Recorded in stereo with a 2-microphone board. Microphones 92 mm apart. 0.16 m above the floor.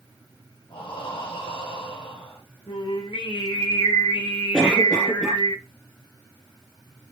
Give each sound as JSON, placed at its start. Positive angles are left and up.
{"t": 0.7, "sound": "breathing", "side_deg": 65, "distance_m": 4.0}
{"t": 2.7, "sound": "singing", "side_deg": 60, "distance_m": 3.5}
{"t": 4.5, "sound": "a cough", "side_deg": 5, "distance_m": 2.0}